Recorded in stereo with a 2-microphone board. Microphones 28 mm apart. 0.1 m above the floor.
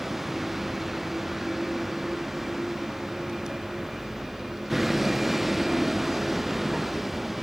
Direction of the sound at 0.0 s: 10° right (ahead or behind).